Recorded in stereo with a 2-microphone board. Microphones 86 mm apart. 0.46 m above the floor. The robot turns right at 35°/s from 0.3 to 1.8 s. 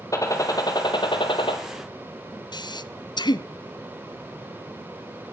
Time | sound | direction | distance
0.1 | a gunshot | 40° left | 2.5 m
2.5 | breathing | 55° left (ahead or behind) | 0.7 m